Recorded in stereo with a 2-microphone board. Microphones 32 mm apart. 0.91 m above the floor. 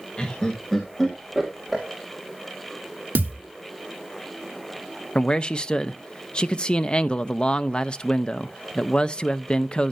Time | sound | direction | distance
0.2 | laughter | 30° left (ahead or behind) | 1.4 m
3.1 | a thud | 75° right (ahead or behind) | 1.1 m
5.2 | a man speaking | 30° left (ahead or behind) | 0.5 m